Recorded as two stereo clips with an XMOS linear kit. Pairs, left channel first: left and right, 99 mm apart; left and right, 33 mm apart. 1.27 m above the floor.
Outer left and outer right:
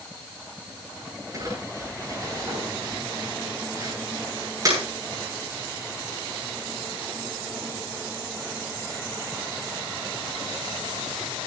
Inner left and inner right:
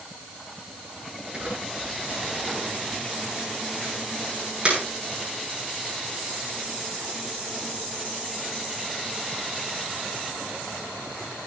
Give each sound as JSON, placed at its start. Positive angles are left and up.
{"t": 1.3, "sound": "crumpling", "side_deg": -35, "distance_m": 10.0}